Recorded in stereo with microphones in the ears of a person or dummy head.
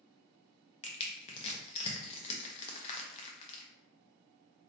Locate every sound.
0.8 s crushing: 30° left (ahead or behind), 0.6 m